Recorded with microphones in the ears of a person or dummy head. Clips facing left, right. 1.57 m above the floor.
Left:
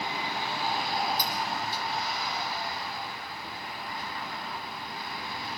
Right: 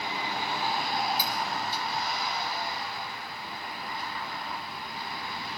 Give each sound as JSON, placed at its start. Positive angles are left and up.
{"t": 1.2, "sound": "cutlery clinking", "side_deg": -10, "distance_m": 4.5}